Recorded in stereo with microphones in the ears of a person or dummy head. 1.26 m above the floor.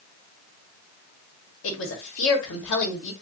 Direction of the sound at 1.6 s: 80° left.